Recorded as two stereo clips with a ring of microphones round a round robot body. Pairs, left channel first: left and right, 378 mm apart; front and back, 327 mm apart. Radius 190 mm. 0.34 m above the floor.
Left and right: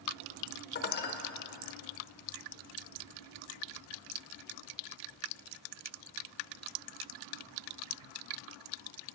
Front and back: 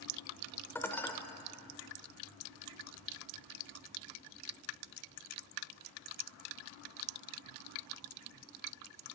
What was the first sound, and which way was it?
Dishes clattering, 75° left.